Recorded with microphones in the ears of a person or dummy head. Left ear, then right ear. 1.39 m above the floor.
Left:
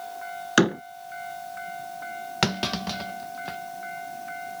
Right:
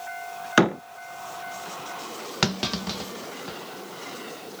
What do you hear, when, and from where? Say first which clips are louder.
0.6 s a door slam: right 1 dB; 10° right (ahead or behind)
2.4 s a clunk: even; 10° left (ahead or behind)